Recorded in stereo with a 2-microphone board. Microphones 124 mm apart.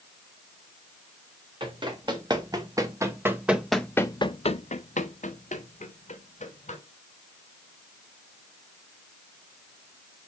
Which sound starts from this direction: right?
Running footsteps, at 1.6 s.